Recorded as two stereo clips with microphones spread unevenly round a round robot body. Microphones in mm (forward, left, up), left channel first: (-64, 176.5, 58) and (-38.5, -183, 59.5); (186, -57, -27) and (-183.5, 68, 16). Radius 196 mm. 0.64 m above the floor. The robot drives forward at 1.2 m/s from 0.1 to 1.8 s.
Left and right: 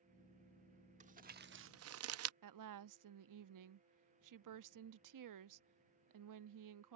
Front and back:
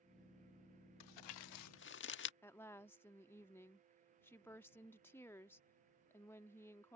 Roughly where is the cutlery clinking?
I don't hear cutlery clinking.